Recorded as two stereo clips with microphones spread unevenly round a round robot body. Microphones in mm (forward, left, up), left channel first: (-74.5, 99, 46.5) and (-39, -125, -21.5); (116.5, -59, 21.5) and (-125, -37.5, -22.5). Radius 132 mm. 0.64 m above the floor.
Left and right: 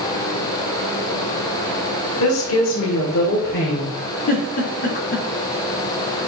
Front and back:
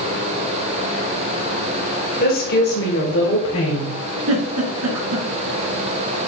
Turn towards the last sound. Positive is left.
turn(degrees=160)